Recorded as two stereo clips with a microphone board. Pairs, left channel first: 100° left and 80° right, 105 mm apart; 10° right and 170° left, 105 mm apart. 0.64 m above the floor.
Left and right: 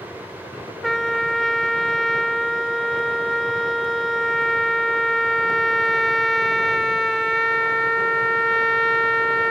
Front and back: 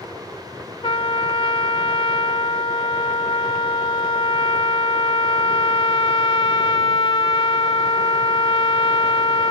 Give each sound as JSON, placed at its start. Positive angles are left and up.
{"t": 0.8, "sound": "a trumpet", "azimuth_deg": 15}